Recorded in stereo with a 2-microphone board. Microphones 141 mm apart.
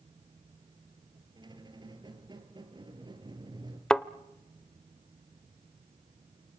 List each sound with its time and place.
1.4 s a squeak: 30° right (ahead or behind), 1.9 m
3.9 s a thud: 5° left (ahead or behind), 0.5 m